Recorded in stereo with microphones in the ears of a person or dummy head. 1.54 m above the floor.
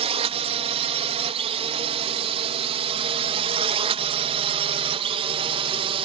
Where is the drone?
35° right (ahead or behind); by 6.0 s 30° right (ahead or behind).